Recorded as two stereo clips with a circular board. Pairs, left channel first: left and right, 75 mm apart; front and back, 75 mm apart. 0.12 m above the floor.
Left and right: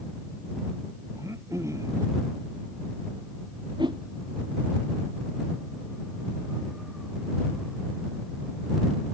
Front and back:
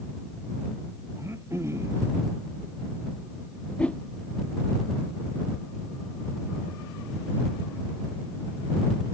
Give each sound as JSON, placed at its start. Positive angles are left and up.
{"t": 1.2, "sound": "throat clearing", "azimuth_deg": -130}
{"t": 3.8, "sound": "a whoosh", "azimuth_deg": -75}